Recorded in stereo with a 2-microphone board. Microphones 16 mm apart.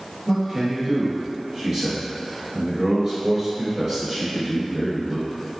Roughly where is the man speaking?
Right.